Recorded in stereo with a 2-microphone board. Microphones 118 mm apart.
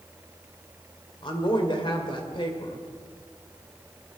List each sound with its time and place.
1.2 s a woman speaking: 45° left (ahead or behind), 2.5 m